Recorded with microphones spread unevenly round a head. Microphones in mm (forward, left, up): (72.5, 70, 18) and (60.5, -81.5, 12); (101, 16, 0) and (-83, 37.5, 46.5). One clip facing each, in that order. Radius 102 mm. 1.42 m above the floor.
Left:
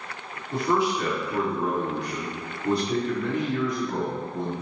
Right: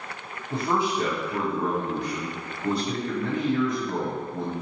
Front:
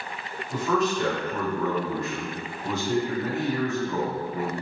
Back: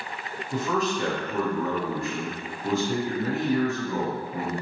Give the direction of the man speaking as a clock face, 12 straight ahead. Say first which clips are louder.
Left 2 dB, front 2 dB; 3 o'clock.